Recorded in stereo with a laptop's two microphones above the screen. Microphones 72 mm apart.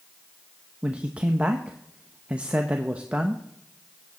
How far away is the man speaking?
About 1.0 m.